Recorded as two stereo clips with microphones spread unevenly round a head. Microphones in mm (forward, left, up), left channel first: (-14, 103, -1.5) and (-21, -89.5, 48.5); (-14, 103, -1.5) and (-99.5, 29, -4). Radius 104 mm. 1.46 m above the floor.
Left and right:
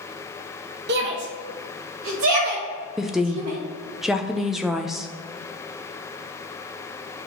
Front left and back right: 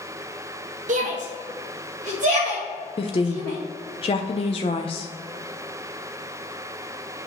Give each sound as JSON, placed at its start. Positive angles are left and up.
{"t": 0.9, "sound": "a shout", "azimuth_deg": -130, "distance_m": 0.9}
{"t": 3.0, "sound": "a woman speaking", "azimuth_deg": -10, "distance_m": 0.5}